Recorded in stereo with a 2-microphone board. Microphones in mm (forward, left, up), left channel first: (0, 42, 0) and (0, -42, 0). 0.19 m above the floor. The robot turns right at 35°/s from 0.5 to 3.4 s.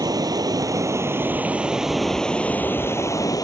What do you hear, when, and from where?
0.0 s running water: 50° right; by 3.4 s 50° left